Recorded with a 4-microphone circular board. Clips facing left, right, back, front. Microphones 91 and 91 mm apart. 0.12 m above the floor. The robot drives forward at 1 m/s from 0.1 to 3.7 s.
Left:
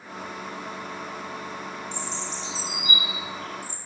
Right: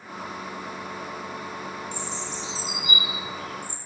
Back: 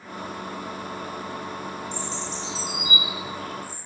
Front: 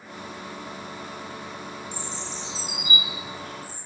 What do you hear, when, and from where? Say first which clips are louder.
1.9 s a bird: even, back 3 dB; 45° right, 6.5 m; by 3.8 s 60° right, 5.5 m